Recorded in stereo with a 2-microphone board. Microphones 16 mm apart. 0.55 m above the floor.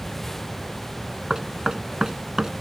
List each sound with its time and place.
1.3 s knocking: 50° right (ahead or behind)